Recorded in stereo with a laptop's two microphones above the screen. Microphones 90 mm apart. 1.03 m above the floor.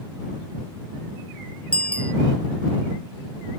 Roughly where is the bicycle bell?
Centre.